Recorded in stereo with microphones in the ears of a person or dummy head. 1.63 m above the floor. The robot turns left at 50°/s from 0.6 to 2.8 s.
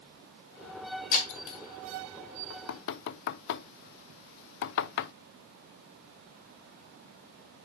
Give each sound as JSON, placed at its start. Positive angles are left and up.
{"t": 1.1, "sound": "breaking glass", "side_deg": 50, "distance_m": 3.5}
{"t": 2.5, "sound": "knocking", "side_deg": 55, "distance_m": 0.5}